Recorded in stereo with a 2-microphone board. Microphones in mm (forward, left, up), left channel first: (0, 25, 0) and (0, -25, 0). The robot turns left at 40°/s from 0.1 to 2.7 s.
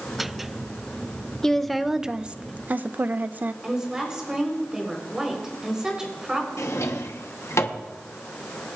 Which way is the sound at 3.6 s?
15° right (ahead or behind).